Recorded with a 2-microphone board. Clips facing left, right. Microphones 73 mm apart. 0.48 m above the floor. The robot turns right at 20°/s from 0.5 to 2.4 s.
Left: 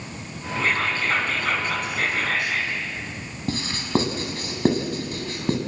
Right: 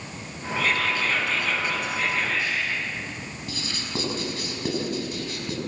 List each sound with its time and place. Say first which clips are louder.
0.6 s whispering: left 1 dB; 30° left, 3.5 m; by 2.8 s 65° left, 3.5 m
3.5 s writing: left 10 dB; 45° left (ahead or behind), 5 m